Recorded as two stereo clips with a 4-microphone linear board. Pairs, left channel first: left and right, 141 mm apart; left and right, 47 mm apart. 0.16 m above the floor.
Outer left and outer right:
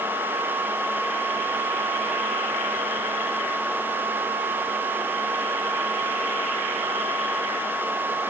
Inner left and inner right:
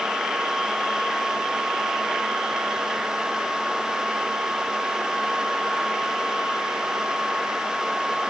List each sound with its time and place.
Only background noise.